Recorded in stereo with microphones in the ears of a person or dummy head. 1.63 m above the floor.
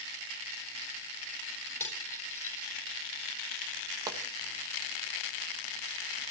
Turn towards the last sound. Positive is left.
turn(degrees=-20)  # may be behind; listen again after turning